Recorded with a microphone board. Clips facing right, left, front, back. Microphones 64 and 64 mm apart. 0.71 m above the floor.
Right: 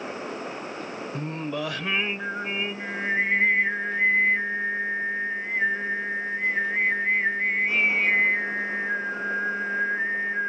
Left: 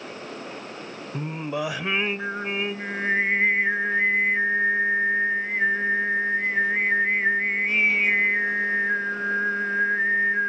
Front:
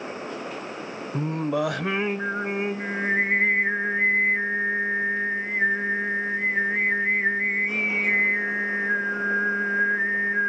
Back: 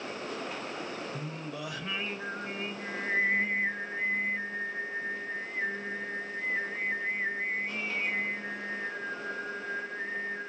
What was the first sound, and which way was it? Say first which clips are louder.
Singing: left 3 dB, front 13 dB; 15° left.